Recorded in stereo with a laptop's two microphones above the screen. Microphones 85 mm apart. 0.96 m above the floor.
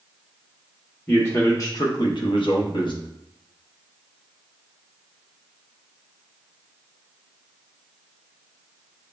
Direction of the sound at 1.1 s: 20° left (ahead or behind).